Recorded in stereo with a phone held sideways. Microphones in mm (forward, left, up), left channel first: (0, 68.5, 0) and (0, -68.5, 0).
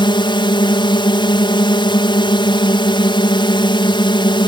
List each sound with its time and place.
0.0 s a drone: 35° left (ahead or behind)